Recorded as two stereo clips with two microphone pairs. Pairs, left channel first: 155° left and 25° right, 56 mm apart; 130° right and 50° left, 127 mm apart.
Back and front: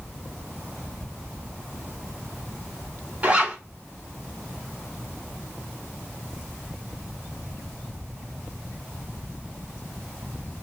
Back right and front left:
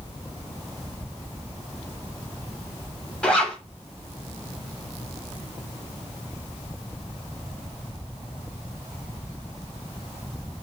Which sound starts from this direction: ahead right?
A zipper, at 3.2 s.